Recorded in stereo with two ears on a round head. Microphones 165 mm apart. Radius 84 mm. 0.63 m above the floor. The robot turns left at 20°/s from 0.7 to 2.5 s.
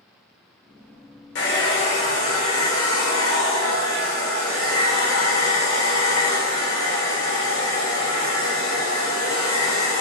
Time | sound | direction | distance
1.4 | a hair dryer | 70° left (ahead or behind) | 0.8 m